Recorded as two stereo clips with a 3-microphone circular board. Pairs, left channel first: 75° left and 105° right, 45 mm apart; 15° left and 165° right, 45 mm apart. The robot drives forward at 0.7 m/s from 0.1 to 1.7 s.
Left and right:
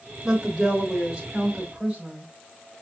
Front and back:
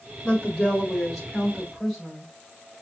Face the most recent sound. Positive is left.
turn(degrees=-100)